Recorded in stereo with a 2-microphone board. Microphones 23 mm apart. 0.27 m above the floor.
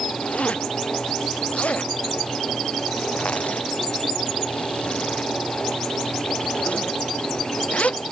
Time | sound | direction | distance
0.2 | a zipper | 65° left (ahead or behind) | ?